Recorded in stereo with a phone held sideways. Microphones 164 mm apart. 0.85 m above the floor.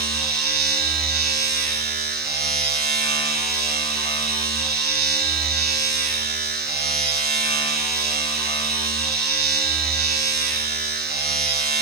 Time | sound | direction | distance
0.0 | a machine running | 80° right | 3 m